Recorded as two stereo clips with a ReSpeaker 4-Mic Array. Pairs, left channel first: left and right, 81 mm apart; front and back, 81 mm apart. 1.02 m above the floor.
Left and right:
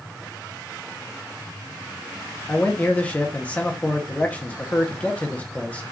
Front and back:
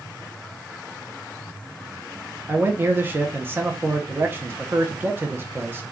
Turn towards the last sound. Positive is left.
turn(degrees=145)